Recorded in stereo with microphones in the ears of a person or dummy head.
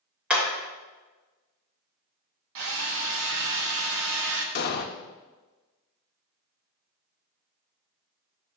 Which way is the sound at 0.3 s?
Centre (ahead or behind).